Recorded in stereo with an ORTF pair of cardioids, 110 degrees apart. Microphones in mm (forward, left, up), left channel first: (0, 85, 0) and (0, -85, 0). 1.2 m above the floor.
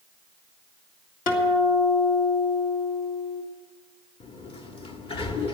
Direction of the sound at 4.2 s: 35° left.